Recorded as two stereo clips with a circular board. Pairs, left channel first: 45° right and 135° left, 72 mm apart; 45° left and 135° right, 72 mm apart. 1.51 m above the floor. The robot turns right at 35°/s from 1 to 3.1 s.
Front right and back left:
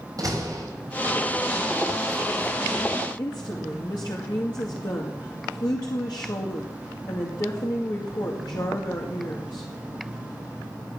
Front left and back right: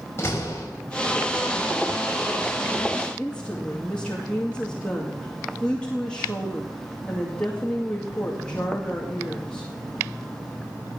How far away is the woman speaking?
About 2 m.